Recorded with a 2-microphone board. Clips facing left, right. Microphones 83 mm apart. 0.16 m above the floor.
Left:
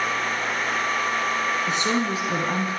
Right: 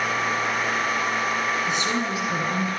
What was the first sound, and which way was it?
A woman speaking, 40° left (ahead or behind).